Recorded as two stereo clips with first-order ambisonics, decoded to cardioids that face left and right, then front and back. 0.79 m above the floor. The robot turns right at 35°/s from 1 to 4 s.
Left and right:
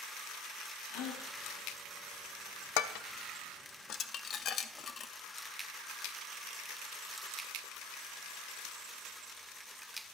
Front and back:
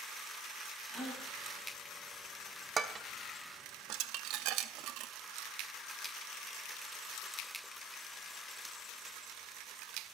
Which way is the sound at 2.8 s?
105° left.